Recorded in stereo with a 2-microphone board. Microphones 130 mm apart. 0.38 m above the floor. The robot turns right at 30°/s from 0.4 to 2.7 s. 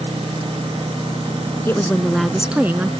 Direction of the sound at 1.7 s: 165° left.